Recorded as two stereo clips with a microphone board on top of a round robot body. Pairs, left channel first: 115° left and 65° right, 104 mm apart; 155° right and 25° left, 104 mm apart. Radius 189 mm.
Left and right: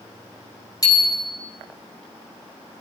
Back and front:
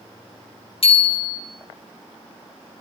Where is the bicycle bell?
170° left, 3.5 m.